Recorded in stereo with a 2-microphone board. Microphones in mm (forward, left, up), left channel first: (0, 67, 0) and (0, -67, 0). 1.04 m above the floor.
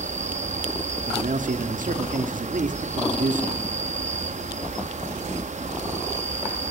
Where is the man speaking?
75° right (ahead or behind), 1.8 m.